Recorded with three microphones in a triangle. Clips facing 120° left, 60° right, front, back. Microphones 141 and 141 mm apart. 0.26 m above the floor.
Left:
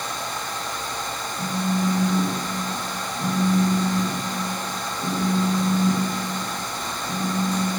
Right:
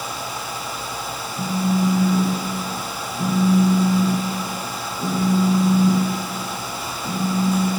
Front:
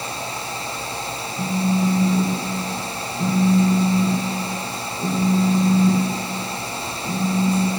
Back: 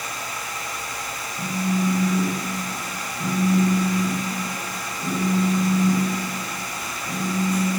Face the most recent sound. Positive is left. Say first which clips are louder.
# right 4 dB, front 3 dB
turn(degrees=-60)